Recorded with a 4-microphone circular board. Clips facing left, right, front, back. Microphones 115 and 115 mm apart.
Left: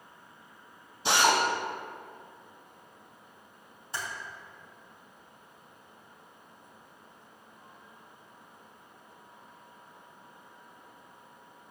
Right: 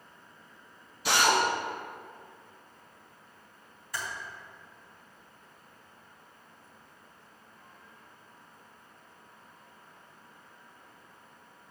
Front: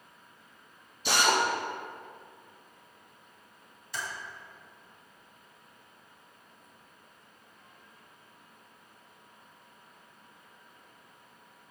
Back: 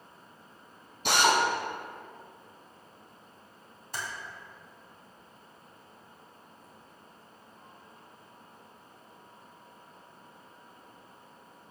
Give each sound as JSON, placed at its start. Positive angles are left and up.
{"t": 1.1, "sound": "a drill", "azimuth_deg": 155, "distance_m": 2.0}
{"t": 3.9, "sound": "typing on a keyboard", "azimuth_deg": 150, "distance_m": 3.0}